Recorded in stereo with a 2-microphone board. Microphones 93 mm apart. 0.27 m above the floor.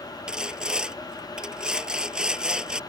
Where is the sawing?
5° right (ahead or behind).